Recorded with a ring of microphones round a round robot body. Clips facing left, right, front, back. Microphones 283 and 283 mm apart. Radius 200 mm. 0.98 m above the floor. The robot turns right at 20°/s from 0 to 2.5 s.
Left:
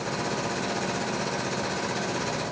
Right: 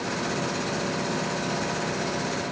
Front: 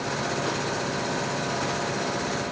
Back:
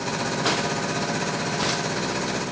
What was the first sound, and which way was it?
Only background noise.